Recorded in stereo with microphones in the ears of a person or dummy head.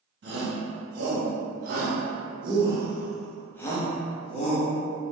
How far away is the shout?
About 1.6 m.